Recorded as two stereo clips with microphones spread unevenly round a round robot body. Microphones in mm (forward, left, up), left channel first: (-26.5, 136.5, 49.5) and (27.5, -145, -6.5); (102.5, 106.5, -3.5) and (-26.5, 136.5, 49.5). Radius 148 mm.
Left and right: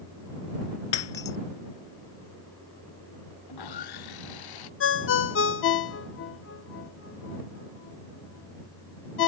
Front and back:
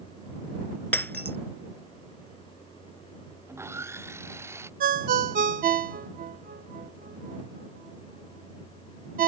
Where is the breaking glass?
65° left.